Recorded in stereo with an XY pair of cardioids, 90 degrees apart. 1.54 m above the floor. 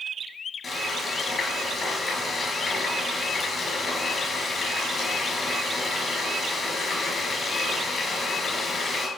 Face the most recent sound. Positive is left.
turn(degrees=40)